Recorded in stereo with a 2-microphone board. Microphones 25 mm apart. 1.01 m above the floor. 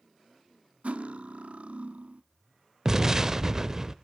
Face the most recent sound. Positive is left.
turn(degrees=-25)  # may be behind; listen again after turning